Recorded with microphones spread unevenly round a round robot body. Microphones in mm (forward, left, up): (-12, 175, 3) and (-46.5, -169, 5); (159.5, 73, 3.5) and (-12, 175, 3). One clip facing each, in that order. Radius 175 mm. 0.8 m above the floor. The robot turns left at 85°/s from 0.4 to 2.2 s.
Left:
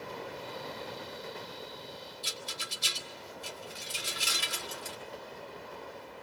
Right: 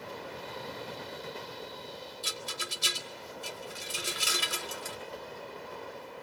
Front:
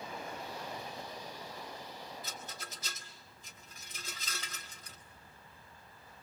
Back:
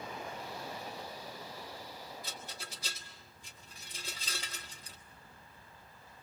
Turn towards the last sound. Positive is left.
turn(degrees=-130)